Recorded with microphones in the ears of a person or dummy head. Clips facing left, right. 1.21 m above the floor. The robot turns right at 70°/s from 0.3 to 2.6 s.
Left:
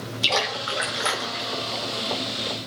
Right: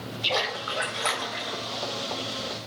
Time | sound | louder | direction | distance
0.2 | a splash | left 2 dB | 115° left | 2.5 m